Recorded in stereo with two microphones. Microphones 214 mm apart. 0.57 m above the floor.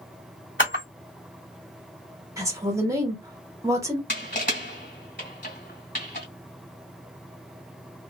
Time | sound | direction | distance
0.6 | a camera shutter | 65° left (ahead or behind) | 2 m
2.4 | a woman speaking | 15° right (ahead or behind) | 1.0 m
4.1 | crushing | 55° left (ahead or behind) | 1.9 m